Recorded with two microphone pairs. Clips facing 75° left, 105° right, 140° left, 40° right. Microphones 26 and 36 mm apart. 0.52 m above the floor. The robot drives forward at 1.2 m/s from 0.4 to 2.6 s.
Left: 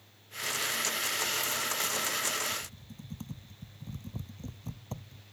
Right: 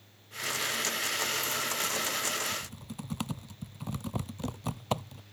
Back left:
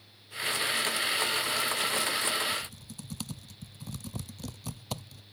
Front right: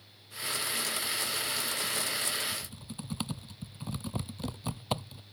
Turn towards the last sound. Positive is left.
turn(degrees=-105)